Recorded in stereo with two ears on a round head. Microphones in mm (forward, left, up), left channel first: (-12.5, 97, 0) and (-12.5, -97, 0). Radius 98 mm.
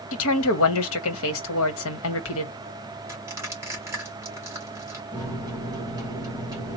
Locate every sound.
0.1 s a woman speaking: 70° left (ahead or behind), 1.3 m
3.1 s crushing: 15° right (ahead or behind), 2 m
5.1 s a microwave: 15° right (ahead or behind), 1.6 m